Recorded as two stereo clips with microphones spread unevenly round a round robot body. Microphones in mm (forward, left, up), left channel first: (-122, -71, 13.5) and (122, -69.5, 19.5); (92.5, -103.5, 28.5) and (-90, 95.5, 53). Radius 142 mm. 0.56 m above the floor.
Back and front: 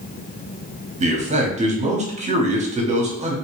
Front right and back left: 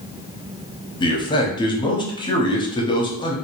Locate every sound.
1.0 s a man speaking: 10° right, 0.9 m